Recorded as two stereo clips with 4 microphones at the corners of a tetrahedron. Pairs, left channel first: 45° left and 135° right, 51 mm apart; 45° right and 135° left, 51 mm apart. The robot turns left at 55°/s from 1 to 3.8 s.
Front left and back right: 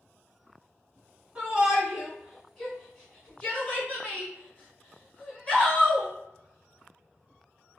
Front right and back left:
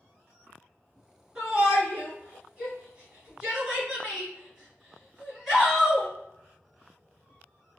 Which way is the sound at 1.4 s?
175° right.